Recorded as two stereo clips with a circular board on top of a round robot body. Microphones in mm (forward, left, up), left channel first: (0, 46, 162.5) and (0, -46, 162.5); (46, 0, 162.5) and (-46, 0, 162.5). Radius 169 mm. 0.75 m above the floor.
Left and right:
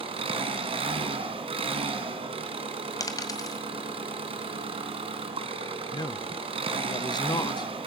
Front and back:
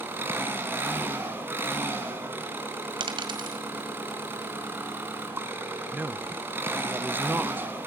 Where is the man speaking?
115° left, 0.9 m.